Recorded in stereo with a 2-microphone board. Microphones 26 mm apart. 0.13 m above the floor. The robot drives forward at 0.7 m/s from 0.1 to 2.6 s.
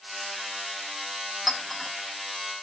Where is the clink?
5° left (ahead or behind), 3.5 m.